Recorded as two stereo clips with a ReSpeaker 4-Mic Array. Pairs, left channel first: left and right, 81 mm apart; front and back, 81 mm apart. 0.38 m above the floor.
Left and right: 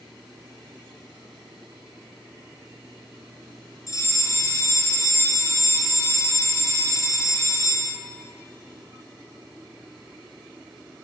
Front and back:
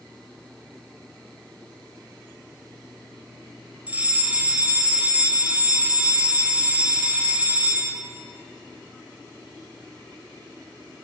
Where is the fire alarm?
115° left, 3 m.